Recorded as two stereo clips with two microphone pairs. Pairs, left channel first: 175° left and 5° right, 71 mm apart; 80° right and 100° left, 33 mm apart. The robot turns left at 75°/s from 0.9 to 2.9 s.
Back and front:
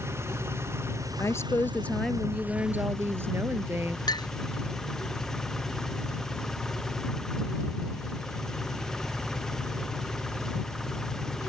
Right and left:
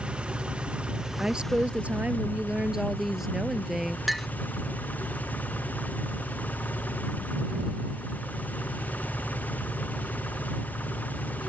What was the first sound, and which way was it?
An engine running, 50° left.